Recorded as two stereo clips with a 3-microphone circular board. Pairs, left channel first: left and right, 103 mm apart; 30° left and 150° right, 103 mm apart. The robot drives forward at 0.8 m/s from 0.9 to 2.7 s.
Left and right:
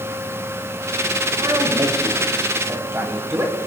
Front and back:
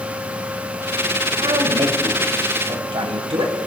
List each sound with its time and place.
1.4 s a man speaking: 130° right, 1.6 m; by 3.5 s 150° right, 2.5 m